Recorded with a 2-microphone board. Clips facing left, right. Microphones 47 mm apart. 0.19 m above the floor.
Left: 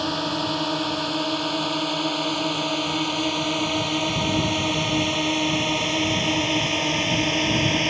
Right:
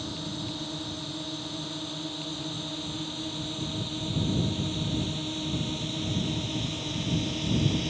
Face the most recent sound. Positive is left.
turn(degrees=65)  # may be behind; listen again after turning